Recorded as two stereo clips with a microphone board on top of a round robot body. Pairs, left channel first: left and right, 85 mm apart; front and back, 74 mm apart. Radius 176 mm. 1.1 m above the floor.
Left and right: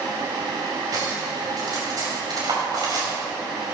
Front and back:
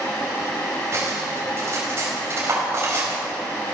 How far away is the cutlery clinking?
About 4.5 m.